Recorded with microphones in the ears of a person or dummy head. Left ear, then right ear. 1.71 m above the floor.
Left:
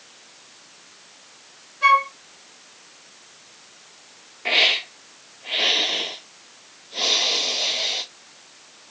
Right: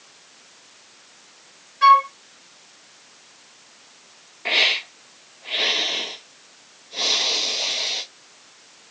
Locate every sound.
1.8 s a flute: 55° right (ahead or behind), 1.9 m
4.5 s a hiss: 15° right (ahead or behind), 1.2 m